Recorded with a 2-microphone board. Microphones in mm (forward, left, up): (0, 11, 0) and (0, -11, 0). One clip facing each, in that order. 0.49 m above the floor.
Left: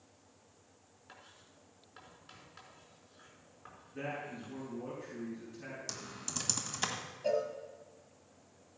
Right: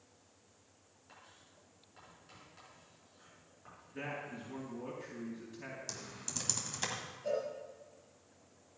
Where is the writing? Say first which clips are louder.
Left 2 dB; 30° left (ahead or behind), 5 m.